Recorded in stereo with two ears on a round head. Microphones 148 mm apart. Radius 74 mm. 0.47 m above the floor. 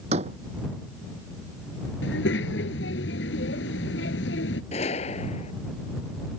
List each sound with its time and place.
0.1 s a door slam: 40° right (ahead or behind)
2.0 s a child speaking: 85° left
4.7 s a gunshot: 40° left (ahead or behind)